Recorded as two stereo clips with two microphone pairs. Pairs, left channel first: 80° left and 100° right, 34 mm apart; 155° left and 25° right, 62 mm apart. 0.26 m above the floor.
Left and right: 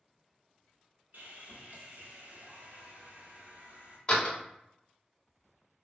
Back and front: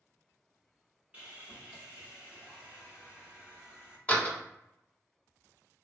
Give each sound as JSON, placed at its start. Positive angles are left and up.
{"t": 1.1, "sound": "sawing", "azimuth_deg": -90, "distance_m": 0.9}
{"t": 4.1, "sound": "a door slam", "azimuth_deg": 100, "distance_m": 0.7}